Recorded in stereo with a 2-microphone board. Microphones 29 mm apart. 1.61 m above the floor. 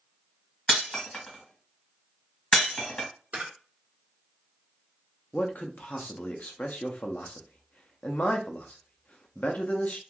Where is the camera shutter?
60° right (ahead or behind), 1.0 m.